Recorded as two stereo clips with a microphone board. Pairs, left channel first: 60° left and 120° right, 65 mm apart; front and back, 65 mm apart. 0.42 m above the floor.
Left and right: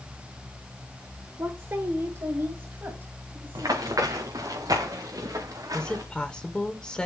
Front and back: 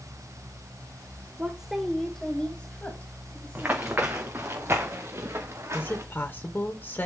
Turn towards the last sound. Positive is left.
turn(degrees=0)